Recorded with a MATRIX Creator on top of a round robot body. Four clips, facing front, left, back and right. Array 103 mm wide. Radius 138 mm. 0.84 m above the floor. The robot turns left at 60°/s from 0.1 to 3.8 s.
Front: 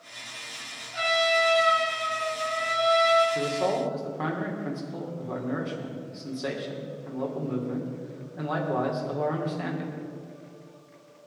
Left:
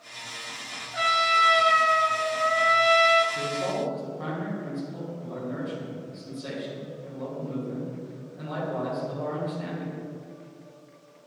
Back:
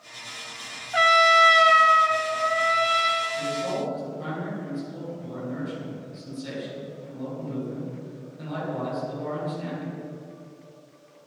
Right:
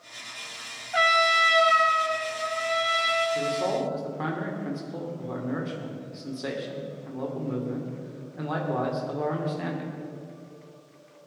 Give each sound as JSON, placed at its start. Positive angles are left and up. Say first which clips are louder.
{"t": 0.9, "sound": "a trumpet", "louder": "right 1 dB, back 7 dB", "azimuth_deg": -140, "distance_m": 1.6}
{"t": 3.4, "sound": "a man speaking", "louder": "right 2 dB, front 2 dB", "azimuth_deg": -20, "distance_m": 3.0}